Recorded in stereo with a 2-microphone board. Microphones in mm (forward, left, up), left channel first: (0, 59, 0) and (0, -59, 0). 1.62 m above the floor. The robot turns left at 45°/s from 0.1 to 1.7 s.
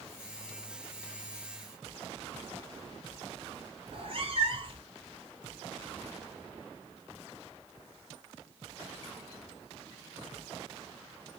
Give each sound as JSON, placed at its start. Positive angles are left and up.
{"t": 3.9, "sound": "a cat meowing", "side_deg": -45, "distance_m": 1.7}